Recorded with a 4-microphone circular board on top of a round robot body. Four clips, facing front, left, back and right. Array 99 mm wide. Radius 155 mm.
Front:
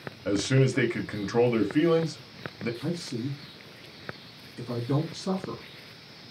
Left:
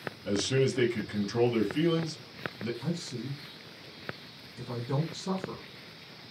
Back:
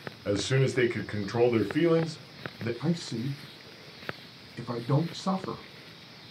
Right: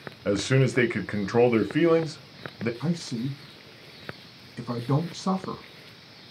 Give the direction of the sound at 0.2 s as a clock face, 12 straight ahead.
3 o'clock.